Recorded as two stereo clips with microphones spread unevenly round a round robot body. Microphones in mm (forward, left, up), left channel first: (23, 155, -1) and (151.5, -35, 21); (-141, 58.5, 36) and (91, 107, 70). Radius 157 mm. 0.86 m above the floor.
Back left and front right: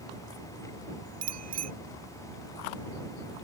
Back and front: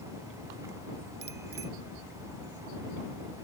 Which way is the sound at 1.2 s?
50° right.